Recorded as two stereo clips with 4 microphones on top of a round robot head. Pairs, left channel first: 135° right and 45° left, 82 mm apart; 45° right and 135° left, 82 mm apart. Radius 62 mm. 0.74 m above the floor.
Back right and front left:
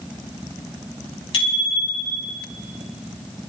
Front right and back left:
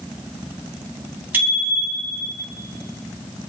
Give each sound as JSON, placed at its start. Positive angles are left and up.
{"t": 1.3, "sound": "a bicycle bell", "azimuth_deg": -155, "distance_m": 4.5}